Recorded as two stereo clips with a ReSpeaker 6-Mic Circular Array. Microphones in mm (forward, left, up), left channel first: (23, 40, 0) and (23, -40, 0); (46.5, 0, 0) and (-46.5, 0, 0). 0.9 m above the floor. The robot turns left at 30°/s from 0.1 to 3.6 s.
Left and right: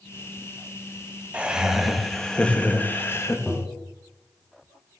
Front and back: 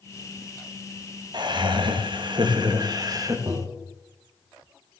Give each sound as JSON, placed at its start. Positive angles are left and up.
{"t": 1.3, "sound": "laughter", "azimuth_deg": -160, "distance_m": 1.0}
{"t": 3.5, "sound": "tapping", "azimuth_deg": 170, "distance_m": 1.0}